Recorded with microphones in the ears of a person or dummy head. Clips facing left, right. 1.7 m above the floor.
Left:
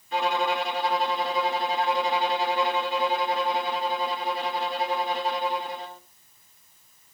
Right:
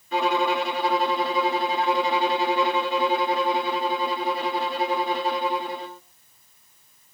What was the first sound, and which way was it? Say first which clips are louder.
A violin: right 3 dB; 60° right (ahead or behind).